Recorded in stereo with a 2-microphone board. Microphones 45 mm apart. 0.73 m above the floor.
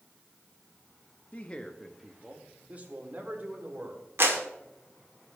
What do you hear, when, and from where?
1.3 s a man speaking: 35° left (ahead or behind), 0.8 m; by 4.1 s 45° right (ahead or behind), 3 m
4.2 s a clap: 70° right (ahead or behind), 1.6 m